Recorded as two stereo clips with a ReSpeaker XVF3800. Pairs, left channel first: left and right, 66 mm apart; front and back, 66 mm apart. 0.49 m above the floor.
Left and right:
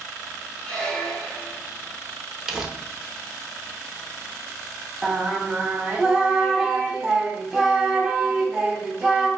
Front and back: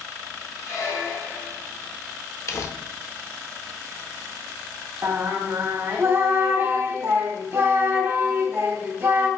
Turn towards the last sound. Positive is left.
turn(degrees=-170)